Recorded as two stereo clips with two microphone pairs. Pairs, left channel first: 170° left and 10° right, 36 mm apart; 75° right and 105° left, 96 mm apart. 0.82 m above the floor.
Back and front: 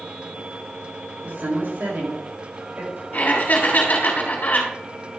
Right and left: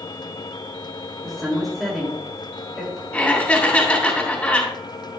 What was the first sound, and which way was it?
A woman speaking, 10° left.